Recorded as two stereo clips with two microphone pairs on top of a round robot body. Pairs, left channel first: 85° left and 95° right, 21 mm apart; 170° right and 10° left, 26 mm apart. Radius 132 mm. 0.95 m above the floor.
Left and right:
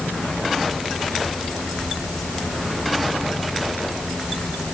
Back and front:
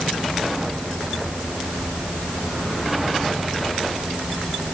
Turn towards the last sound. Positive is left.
No sound to turn to.